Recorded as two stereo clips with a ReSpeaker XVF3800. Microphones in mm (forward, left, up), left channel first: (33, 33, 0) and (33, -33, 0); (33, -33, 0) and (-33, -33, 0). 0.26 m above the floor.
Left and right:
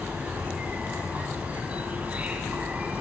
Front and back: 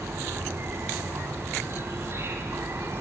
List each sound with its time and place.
0.0 s an insect: 150° right, 3 m